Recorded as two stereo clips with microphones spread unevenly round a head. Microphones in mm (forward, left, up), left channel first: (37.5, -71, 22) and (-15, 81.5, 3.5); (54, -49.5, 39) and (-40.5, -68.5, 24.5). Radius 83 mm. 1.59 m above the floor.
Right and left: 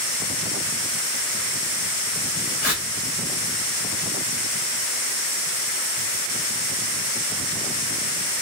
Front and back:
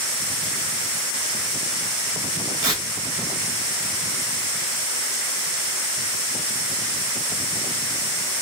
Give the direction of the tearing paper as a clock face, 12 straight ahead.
4 o'clock.